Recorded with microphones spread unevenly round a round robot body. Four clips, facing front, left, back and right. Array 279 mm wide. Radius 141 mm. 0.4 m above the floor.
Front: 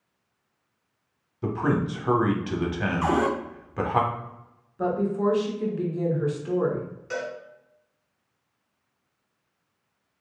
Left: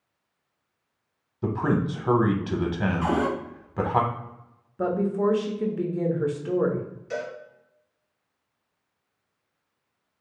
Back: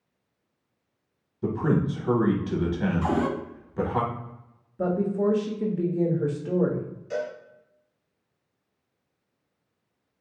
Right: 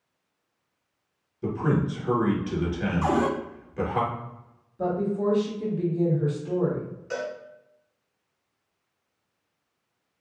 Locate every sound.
1.4 s a man speaking: 85° left, 0.8 m
3.0 s a cupboard door: 35° right, 0.9 m
4.8 s a woman speaking: 125° left, 1.1 m
7.1 s a cowbell: 30° right, 1.6 m